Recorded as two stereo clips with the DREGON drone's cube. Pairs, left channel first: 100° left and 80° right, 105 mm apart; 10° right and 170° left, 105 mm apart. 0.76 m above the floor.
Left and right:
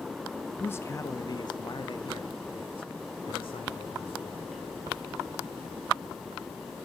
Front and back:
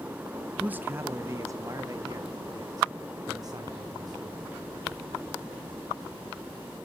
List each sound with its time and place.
0.6 s a man speaking: 115° left, 0.5 m; by 4.5 s 120° left, 2.5 m